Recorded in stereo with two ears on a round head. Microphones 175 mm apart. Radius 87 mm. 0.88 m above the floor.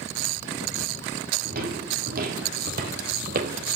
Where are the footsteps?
50° right (ahead or behind), 3 m; by 3.8 s 45° right (ahead or behind), 1.8 m.